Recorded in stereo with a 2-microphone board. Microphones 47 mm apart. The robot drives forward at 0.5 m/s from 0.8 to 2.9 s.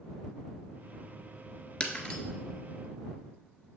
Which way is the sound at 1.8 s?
20° left (ahead or behind).